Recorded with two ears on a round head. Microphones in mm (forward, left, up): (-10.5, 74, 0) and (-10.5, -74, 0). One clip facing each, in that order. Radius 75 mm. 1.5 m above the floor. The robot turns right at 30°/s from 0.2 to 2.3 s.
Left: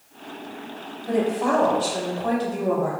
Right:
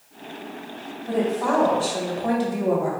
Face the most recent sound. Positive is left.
turn(degrees=-165)